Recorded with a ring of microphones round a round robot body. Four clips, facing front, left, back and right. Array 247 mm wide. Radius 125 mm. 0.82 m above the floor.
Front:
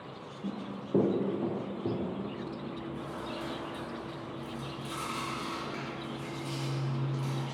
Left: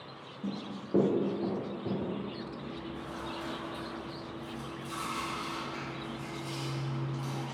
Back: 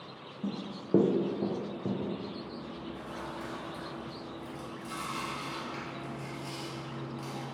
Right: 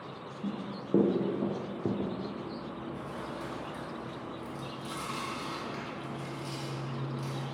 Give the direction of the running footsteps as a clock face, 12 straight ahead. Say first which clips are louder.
Right 1 dB, back 1 dB; 6 o'clock.